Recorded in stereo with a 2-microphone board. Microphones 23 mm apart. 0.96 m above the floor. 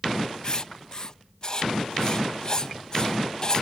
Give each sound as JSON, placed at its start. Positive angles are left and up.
{"t": 0.4, "sound": "writing", "side_deg": 35}